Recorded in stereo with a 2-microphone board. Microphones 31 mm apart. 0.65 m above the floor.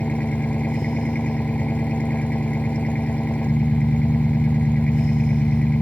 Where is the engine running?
45° left (ahead or behind).